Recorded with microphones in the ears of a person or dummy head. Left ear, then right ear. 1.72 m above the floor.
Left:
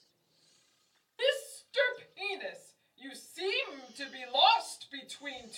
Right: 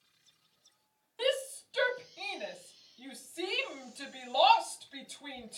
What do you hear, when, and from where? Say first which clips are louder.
1.2 s a shout: left 1 dB; 10° left (ahead or behind), 1.6 m